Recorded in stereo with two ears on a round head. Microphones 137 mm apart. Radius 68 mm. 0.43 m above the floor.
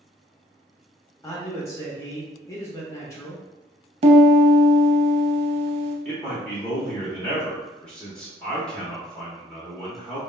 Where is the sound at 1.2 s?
20° left (ahead or behind), 0.8 m.